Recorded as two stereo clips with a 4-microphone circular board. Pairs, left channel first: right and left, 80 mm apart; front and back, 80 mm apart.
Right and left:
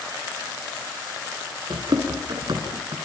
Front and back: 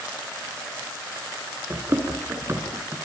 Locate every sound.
1.7 s running footsteps: 120° left, 8.5 m